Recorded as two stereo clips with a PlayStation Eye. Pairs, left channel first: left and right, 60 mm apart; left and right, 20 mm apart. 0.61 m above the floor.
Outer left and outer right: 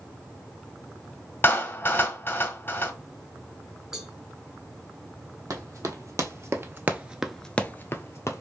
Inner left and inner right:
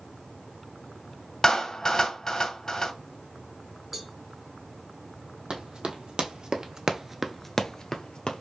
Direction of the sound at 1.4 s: 35° left (ahead or behind).